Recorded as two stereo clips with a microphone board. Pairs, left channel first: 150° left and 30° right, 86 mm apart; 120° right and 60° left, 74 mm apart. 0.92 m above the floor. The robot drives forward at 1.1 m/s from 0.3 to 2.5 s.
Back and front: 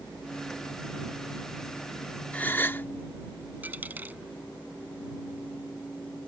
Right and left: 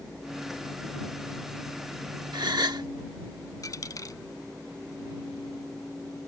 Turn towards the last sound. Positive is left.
turn(degrees=-95)